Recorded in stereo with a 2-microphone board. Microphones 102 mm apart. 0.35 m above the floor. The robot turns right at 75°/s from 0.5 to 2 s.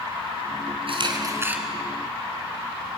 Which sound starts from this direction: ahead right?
A camera shutter, at 0.9 s.